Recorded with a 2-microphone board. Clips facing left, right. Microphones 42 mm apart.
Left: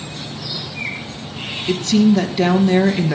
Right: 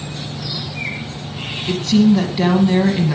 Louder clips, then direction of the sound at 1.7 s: Right 1 dB; 10° right (ahead or behind).